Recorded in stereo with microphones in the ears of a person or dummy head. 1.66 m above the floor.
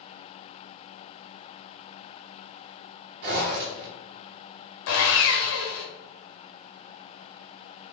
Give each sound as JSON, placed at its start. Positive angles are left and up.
{"t": 3.2, "sound": "a zipper", "side_deg": -60, "distance_m": 1.1}
{"t": 4.9, "sound": "sawing", "side_deg": 70, "distance_m": 1.0}